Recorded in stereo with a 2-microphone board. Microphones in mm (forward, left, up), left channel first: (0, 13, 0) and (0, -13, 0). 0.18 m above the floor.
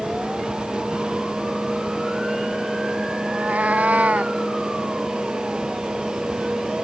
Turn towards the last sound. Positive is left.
turn(degrees=-90)